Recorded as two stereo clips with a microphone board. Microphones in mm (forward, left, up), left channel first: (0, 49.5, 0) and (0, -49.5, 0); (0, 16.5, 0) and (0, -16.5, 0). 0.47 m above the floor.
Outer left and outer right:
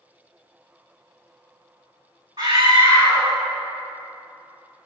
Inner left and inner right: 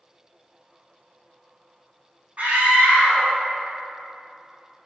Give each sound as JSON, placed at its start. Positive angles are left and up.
{"t": 2.4, "sound": "a scream", "side_deg": -55, "distance_m": 2.5}